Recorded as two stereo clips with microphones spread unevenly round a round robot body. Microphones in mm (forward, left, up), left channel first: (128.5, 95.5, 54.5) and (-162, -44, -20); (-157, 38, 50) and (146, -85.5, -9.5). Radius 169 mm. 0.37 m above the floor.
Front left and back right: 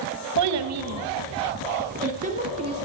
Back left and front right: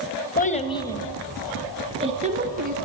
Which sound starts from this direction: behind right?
A child speaking, at 0.4 s.